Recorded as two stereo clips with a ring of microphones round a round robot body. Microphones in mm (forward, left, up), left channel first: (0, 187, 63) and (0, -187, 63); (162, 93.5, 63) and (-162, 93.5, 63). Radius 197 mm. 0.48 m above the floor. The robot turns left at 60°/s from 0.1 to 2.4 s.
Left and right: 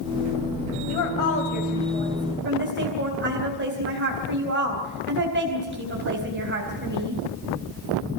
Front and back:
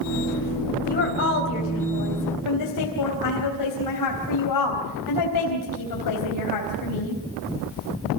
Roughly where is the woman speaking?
Ahead left.